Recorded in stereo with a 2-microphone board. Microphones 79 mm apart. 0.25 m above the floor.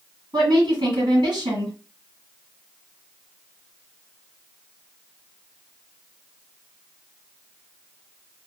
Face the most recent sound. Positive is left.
turn(degrees=-65)  # may be behind; listen again after turning